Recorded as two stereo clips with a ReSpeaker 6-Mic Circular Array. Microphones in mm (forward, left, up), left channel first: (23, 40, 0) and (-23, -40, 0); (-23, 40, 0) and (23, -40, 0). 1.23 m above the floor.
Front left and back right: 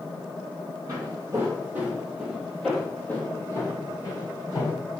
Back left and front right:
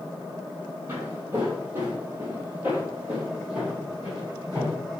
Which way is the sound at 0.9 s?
110° right.